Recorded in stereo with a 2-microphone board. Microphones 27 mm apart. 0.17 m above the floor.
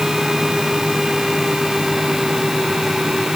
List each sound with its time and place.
Only background noise.